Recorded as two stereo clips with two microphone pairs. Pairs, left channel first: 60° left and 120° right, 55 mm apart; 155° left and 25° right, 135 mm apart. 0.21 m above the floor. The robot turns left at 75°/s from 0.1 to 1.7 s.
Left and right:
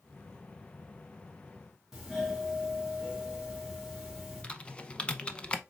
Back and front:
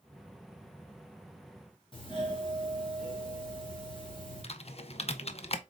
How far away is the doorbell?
About 1.7 m.